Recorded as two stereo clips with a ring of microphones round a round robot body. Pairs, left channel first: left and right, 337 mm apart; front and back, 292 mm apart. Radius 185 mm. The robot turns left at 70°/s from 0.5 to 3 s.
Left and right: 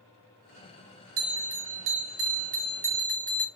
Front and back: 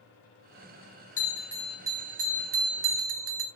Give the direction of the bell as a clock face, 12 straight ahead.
2 o'clock.